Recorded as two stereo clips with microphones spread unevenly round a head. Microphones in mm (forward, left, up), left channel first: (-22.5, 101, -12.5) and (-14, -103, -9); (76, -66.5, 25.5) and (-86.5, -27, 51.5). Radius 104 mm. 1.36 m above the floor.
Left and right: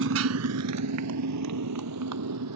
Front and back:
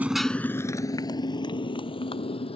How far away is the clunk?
I don't hear a clunk.